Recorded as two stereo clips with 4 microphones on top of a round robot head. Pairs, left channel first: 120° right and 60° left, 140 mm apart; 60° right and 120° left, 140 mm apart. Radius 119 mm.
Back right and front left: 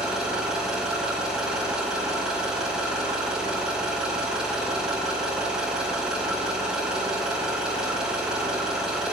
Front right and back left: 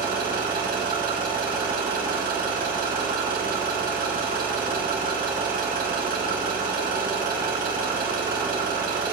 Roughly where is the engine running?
Behind left.